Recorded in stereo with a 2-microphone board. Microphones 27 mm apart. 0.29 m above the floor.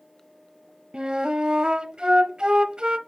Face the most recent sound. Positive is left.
turn(degrees=-35)  # may be behind; listen again after turning